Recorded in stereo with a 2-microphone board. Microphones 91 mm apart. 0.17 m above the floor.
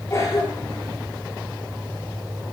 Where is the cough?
40° left (ahead or behind), 9.5 m.